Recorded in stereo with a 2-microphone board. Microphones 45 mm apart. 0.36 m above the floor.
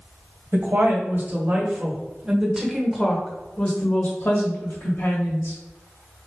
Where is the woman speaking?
55° right (ahead or behind), 1.5 m; by 5.6 s 55° left (ahead or behind), 1.6 m.